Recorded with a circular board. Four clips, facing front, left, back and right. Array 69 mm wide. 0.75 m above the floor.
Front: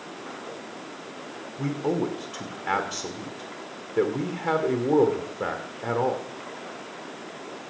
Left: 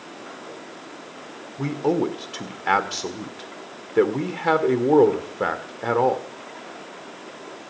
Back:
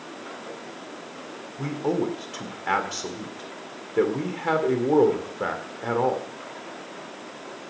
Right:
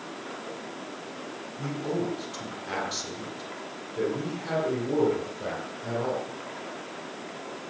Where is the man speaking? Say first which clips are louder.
Left 8 dB, back 1 dB; 95° left, 1.9 m.